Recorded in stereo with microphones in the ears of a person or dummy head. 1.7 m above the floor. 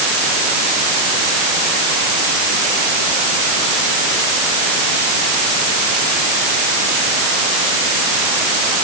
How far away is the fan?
I don't hear a fan.